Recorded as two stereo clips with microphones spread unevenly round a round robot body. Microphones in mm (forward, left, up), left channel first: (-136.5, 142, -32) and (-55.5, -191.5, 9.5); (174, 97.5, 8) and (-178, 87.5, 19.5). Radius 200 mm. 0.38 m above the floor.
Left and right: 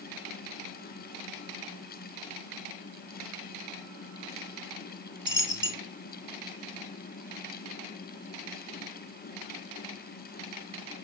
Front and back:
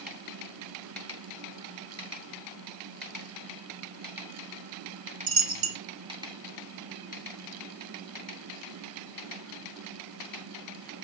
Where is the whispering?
No whispering in this recording.